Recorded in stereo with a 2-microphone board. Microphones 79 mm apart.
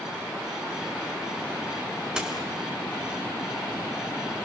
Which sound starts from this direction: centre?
A dropped coin, at 2.2 s.